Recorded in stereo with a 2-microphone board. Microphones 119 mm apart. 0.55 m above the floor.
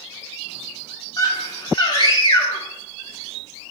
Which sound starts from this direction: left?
A scream, at 1.2 s.